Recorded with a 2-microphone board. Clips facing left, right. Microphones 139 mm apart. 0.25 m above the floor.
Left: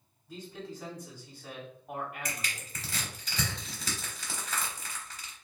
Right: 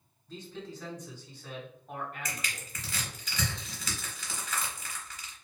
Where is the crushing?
35° left (ahead or behind), 1.1 m.